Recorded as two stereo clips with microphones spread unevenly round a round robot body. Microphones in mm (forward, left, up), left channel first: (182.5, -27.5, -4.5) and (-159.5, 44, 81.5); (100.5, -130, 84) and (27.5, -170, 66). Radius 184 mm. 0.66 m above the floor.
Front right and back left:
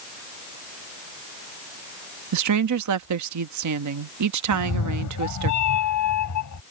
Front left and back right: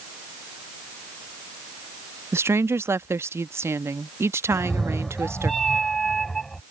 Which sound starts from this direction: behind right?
A woman speaking, at 2.3 s.